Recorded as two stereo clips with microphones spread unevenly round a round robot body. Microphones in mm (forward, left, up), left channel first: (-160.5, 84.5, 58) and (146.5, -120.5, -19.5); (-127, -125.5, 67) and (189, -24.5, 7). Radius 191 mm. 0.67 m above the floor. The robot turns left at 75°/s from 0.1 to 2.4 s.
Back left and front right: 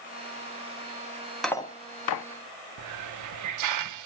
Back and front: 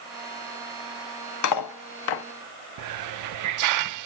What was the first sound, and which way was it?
Cutlery clinking, 120° right.